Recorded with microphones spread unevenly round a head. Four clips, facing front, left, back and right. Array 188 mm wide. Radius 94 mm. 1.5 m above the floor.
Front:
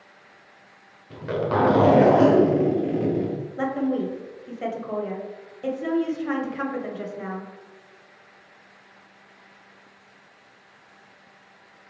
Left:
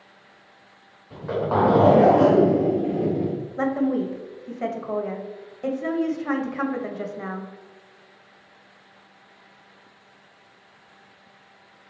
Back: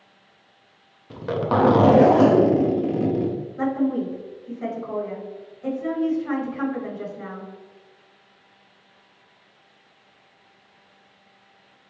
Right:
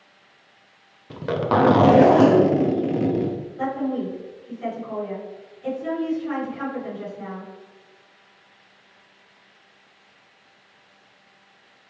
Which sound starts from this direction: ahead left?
A woman speaking, at 3.6 s.